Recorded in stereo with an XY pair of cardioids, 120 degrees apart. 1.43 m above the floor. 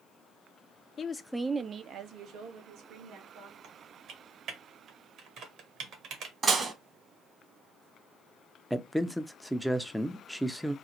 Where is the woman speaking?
40° left, 0.6 m; by 3.5 s 80° right, 2.5 m.